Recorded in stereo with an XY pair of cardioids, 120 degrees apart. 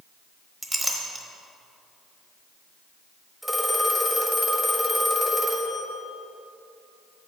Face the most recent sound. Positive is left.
turn(degrees=0)